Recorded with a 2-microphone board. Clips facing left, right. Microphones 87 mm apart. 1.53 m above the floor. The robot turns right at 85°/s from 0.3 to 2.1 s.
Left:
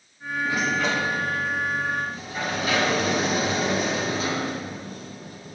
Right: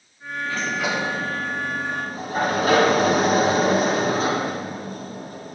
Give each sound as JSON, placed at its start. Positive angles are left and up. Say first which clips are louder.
{"t": 0.5, "sound": "a sliding door", "louder": "left 1 dB", "azimuth_deg": 155, "distance_m": 0.9}